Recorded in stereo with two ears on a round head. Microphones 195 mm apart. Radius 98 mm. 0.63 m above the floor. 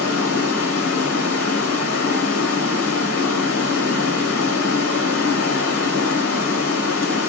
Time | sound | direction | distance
0.0 | running water | 70° left (ahead or behind) | 1.2 m